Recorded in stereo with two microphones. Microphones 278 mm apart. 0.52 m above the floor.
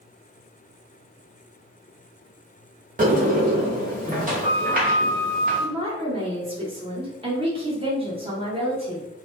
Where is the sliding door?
30° right (ahead or behind), 0.8 m.